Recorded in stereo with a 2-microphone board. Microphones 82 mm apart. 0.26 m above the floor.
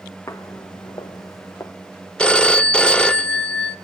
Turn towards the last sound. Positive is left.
turn(degrees=10)  # may be behind; listen again after turning